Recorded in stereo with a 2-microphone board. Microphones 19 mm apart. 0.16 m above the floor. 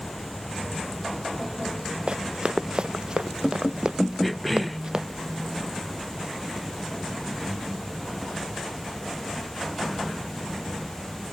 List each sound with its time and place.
2.1 s running footsteps: 55° right (ahead or behind); by 5.0 s 40° right (ahead or behind)
4.2 s a cough: 5° left (ahead or behind)